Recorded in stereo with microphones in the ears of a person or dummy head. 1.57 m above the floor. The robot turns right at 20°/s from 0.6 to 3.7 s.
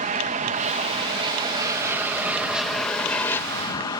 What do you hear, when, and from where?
0.0 s an aircraft: 45° right; by 4.0 s 20° left